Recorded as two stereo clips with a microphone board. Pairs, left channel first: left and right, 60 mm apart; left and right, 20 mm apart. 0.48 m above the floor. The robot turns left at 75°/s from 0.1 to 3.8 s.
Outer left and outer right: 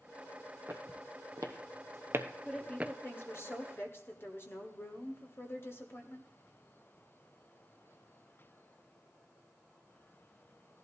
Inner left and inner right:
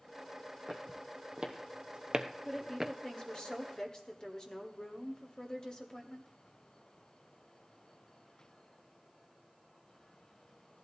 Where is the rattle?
No rattle in this recording.